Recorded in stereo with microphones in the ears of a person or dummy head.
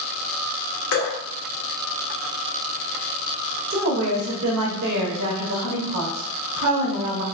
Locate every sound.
0.9 s dripping: 65° left (ahead or behind), 1.1 m
3.7 s a woman speaking: 65° right (ahead or behind), 1.4 m